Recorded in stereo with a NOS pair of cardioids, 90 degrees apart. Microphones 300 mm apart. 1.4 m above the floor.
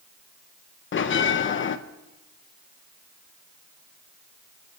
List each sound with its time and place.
0.9 s a bell: 40° left, 1.0 m